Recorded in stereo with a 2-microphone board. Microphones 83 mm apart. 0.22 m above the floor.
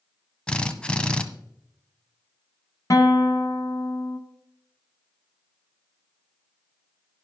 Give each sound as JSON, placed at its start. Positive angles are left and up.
{"t": 0.5, "sound": "a drill", "side_deg": 15, "distance_m": 0.8}
{"t": 2.9, "sound": "a guitar", "side_deg": 45, "distance_m": 1.4}